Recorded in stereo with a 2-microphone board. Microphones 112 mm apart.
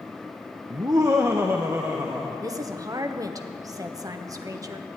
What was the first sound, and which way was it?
Laughter, 35° right (ahead or behind).